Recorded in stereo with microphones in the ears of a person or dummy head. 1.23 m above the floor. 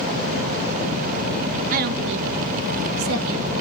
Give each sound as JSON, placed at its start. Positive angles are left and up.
{"t": 1.7, "sound": "a woman speaking", "side_deg": -45, "distance_m": 1.6}